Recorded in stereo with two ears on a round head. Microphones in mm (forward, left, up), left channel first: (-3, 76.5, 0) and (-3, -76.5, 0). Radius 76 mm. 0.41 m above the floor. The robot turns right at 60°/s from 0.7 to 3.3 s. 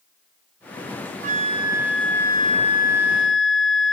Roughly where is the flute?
Ahead right.